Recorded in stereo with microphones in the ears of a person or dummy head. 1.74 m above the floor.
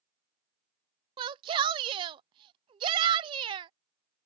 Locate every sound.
1.2 s a shout: 30° right (ahead or behind)